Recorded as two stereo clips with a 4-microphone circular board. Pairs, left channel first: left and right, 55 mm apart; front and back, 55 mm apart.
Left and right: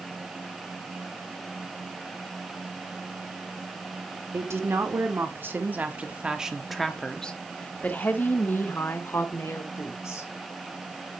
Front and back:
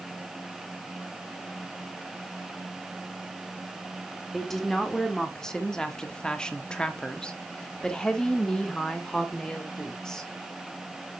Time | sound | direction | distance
4.3 | a woman speaking | 85° right | 1.9 m